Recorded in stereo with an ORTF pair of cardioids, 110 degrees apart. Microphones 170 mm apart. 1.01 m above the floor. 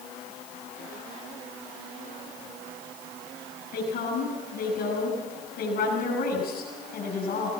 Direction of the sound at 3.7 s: 60° left.